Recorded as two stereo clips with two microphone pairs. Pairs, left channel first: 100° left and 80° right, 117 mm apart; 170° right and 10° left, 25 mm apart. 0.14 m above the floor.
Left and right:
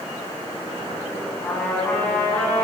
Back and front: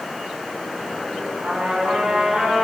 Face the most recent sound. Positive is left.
turn(degrees=20)